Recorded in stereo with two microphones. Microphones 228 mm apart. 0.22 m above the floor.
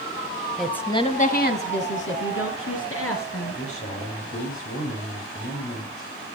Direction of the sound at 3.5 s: 75° left (ahead or behind).